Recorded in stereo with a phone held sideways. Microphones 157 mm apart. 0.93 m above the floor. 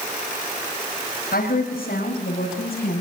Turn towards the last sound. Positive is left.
turn(degrees=80)